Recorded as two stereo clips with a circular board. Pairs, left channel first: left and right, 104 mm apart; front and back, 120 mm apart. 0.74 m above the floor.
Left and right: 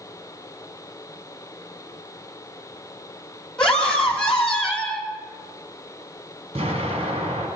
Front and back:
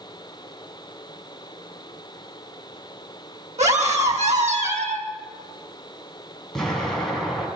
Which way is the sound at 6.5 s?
85° right.